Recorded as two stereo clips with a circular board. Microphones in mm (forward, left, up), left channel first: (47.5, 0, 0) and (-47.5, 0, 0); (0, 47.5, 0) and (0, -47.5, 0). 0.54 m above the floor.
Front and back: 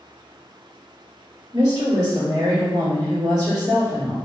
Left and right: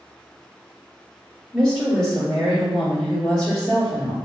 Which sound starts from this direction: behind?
A woman speaking, at 1.5 s.